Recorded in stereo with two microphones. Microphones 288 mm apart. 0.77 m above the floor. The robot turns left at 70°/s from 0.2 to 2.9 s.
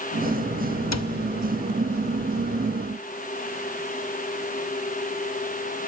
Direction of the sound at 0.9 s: 65° left (ahead or behind).